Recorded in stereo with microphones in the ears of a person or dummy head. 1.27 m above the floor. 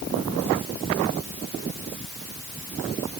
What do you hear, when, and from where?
Only background noise.